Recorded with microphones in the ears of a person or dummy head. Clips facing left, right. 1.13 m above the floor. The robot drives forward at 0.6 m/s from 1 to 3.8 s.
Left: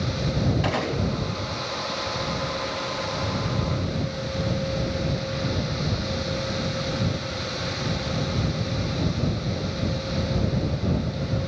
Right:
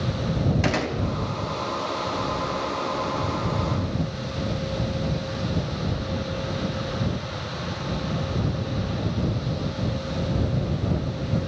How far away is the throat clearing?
I don't hear throat clearing.